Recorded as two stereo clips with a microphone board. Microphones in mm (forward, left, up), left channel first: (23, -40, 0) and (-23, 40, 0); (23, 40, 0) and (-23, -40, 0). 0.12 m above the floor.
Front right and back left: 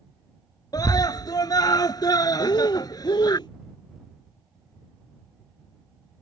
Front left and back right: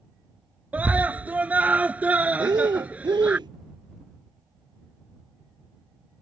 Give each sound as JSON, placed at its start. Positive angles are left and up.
{"t": 0.7, "sound": "a scream", "azimuth_deg": -55}
{"t": 2.4, "sound": "breathing", "azimuth_deg": -90}